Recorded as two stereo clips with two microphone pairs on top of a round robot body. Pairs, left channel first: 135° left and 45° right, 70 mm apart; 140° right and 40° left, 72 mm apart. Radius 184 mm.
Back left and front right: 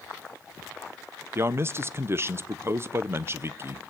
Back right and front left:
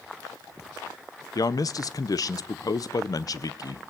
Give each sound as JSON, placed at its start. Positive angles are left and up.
{"t": 1.4, "sound": "a man speaking", "azimuth_deg": -105, "distance_m": 0.7}